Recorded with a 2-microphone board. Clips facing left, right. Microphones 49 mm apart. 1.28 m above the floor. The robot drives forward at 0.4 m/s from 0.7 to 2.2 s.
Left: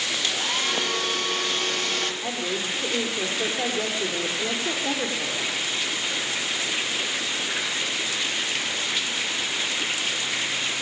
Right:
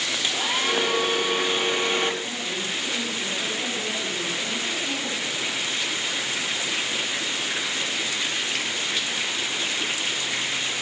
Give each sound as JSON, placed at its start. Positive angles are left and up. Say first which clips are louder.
{"t": 0.2, "sound": "a hair dryer", "louder": "right 3 dB", "side_deg": -10, "distance_m": 1.3}
{"t": 2.2, "sound": "a woman speaking", "louder": "left 2 dB", "side_deg": 85, "distance_m": 4.5}